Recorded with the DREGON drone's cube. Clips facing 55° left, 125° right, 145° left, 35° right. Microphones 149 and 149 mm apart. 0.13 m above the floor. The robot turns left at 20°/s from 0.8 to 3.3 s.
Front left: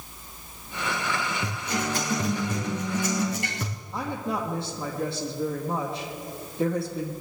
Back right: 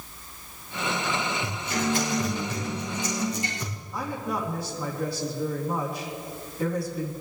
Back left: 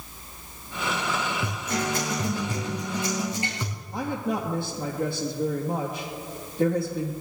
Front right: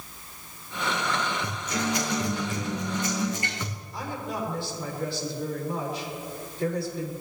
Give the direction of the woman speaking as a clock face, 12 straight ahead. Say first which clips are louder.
Front left 1 dB, back left 6 dB; 8 o'clock.